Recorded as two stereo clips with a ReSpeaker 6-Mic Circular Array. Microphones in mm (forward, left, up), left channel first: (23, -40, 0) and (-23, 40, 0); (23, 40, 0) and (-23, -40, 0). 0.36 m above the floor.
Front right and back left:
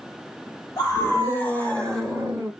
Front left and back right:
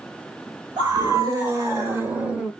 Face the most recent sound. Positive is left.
turn(degrees=170)